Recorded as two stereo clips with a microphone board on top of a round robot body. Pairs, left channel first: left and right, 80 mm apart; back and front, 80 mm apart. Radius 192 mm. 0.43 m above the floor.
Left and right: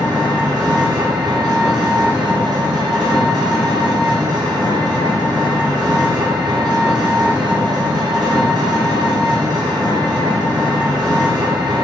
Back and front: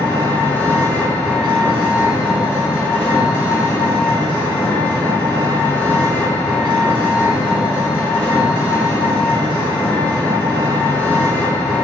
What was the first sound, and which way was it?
An engine running, 115° right.